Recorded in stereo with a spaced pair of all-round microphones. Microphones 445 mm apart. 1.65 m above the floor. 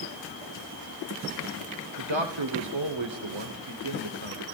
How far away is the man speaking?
About 1.2 m.